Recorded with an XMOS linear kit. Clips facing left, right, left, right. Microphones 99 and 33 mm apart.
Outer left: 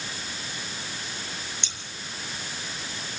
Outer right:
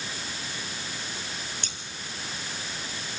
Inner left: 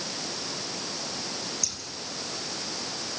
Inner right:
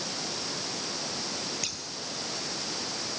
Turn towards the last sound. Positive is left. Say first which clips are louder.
# outer right 1 dB, inner right 1 dB
turn(degrees=-45)  # may be behind; listen again after turning